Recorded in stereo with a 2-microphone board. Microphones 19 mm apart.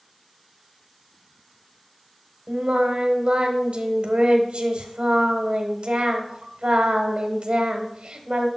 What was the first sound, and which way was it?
Singing, 60° right (ahead or behind).